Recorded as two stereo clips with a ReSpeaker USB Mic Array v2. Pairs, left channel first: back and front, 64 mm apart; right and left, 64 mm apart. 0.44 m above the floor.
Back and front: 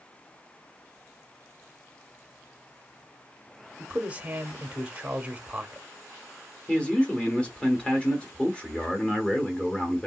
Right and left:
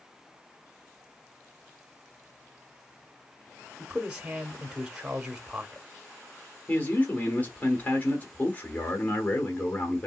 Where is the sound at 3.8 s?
30° left, 0.8 m.